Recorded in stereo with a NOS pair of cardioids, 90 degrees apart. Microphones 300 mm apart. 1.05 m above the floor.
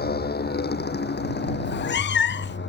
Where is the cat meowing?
35° left.